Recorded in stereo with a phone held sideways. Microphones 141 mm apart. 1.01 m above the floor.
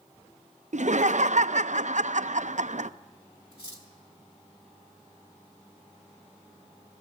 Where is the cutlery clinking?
45° left (ahead or behind), 2.5 m.